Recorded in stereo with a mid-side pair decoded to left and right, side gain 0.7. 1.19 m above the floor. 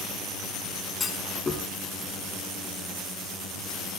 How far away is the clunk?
About 5.5 m.